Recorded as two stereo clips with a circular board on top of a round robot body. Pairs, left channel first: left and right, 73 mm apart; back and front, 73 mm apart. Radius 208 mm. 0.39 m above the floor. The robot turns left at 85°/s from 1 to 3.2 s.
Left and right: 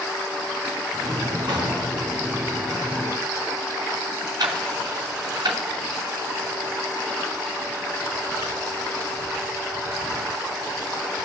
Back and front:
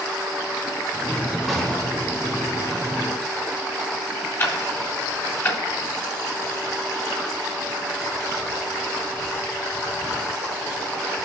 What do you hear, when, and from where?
1.5 s an explosion: 90° right, 1.6 m; by 2.2 s 150° right, 1.6 m
4.4 s ticking: 120° right, 0.8 m